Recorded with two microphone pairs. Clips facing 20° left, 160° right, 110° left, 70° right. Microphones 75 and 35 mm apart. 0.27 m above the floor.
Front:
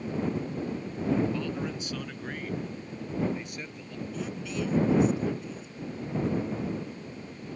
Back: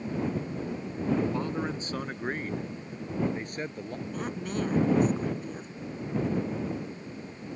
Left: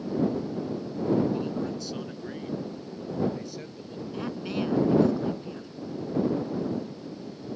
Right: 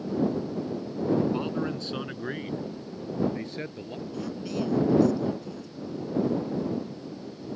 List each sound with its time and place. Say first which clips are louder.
1.3 s a man speaking: back 2 dB, right 1 dB; 110° right; by 4.0 s 115° right
4.1 s a woman speaking: back 1 dB, left 2 dB; 165° left